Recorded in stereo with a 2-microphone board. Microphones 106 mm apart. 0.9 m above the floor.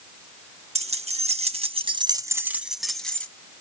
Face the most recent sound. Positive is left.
turn(degrees=10)  # may be behind; listen again after turning